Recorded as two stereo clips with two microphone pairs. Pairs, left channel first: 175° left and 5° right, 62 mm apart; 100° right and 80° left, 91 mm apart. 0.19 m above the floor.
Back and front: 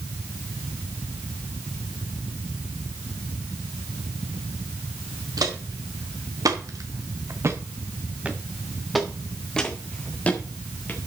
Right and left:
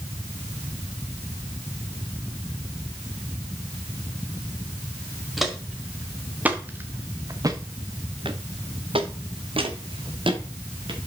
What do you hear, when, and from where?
5.4 s footsteps: 5° right, 2.5 m; by 11.0 s 110° left, 3 m